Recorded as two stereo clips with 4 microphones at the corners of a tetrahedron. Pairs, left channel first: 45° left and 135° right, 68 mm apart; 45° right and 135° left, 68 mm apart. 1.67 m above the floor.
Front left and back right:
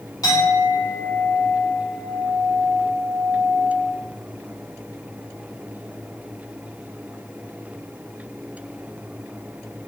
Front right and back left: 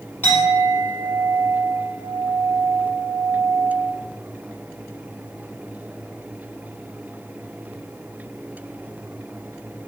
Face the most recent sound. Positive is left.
turn(degrees=15)